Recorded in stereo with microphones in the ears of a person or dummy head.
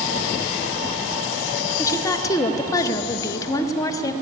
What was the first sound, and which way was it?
A woman speaking, 20° left (ahead or behind).